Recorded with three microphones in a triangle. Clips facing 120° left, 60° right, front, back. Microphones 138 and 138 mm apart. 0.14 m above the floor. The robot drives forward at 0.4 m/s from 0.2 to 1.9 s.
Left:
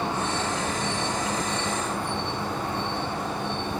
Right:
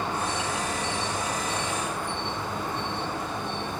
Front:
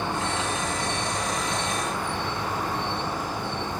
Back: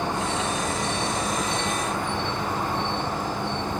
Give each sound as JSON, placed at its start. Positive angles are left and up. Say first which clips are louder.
{"t": 0.0, "sound": "an insect", "louder": "left 2 dB, back 2 dB", "azimuth_deg": 130, "distance_m": 3.5}